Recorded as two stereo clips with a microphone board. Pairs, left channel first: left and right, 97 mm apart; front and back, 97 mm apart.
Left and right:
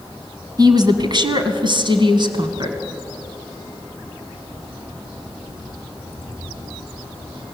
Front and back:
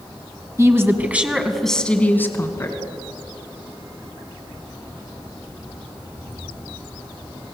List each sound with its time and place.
0.6 s a woman speaking: 130° right, 2.5 m; by 2.8 s 50° right, 3 m